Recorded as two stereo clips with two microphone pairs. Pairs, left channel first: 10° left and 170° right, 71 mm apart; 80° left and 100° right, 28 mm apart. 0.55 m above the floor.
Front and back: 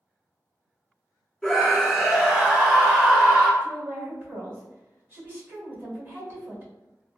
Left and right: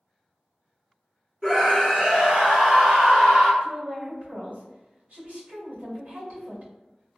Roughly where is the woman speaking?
Right.